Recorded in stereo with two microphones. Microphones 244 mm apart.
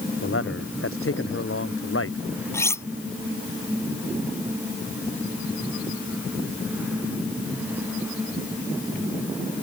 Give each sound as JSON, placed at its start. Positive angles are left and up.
{"t": 0.2, "sound": "a man speaking", "side_deg": 60}
{"t": 2.5, "sound": "cutlery clinking", "side_deg": 10}